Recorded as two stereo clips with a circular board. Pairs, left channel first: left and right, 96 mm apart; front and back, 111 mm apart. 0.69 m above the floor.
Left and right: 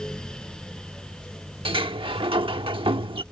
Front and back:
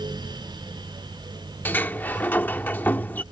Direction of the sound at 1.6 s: 75° right.